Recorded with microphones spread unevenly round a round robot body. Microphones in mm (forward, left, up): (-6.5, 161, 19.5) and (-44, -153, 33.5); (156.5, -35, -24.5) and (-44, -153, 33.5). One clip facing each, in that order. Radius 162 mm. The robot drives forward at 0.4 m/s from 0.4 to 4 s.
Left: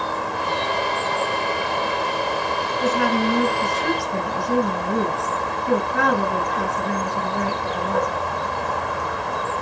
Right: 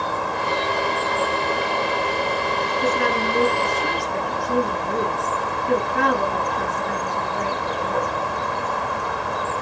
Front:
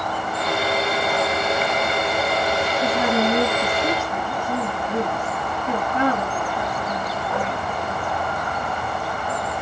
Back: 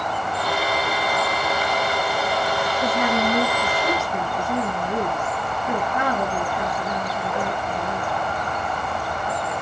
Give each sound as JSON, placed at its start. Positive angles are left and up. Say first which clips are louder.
{"t": 2.8, "sound": "a woman speaking", "louder": "left 3 dB, front 2 dB", "azimuth_deg": 120, "distance_m": 5.0}